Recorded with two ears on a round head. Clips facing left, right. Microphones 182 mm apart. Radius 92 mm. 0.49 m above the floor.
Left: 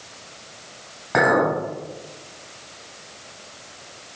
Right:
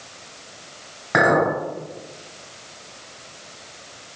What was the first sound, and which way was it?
A clink, 20° right (ahead or behind).